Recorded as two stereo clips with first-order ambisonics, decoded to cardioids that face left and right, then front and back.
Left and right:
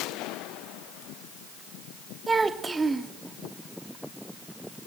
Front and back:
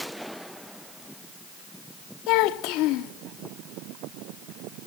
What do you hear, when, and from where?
2.3 s a child speaking: 15° right, 0.9 m